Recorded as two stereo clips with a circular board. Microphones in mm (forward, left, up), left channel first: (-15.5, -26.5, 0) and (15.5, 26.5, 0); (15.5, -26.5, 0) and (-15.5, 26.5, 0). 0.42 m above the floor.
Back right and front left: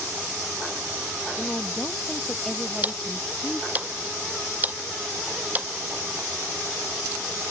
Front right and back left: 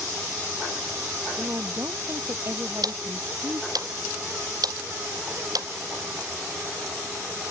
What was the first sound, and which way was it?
A woman speaking, 165° left.